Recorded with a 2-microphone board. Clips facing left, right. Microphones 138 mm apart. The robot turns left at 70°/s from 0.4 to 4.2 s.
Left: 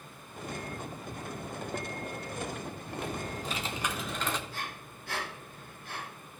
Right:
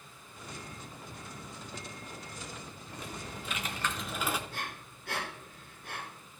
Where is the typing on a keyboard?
85° left, 1.1 m; by 4.4 s 10° right, 1.1 m.